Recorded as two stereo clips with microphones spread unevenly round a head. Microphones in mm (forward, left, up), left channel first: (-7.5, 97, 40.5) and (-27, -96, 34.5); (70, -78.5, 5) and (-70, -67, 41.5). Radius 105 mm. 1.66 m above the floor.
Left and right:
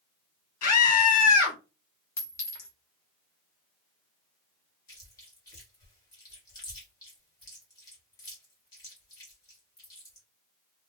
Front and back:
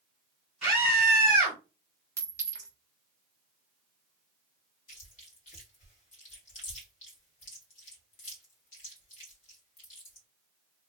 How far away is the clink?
About 0.6 m.